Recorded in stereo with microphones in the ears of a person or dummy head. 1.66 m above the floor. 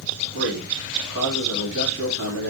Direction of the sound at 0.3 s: 65° right (ahead or behind).